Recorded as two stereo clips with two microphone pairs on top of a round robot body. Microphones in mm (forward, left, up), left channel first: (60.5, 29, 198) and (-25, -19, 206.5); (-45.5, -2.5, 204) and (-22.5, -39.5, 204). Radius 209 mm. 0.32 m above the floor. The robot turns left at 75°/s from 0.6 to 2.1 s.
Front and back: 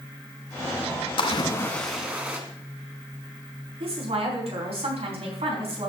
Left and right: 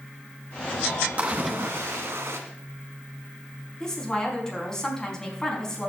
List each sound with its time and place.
1.2 s a splash: 5° right, 1.7 m; by 2.4 s 75° right, 1.7 m
3.8 s a woman speaking: 165° right, 4.5 m